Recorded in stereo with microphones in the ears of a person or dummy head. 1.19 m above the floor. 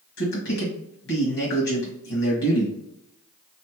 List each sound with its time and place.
0.2 s a man speaking: 65° left (ahead or behind), 1.8 m